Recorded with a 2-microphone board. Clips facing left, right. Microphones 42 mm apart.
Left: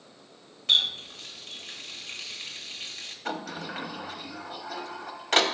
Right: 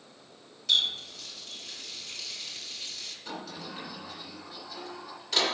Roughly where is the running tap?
Left.